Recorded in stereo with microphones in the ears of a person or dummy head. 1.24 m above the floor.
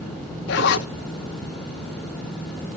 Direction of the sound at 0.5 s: 60° left (ahead or behind).